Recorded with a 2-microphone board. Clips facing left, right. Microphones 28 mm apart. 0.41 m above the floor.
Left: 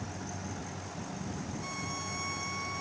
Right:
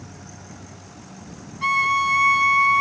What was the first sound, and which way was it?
A violin, 80° right.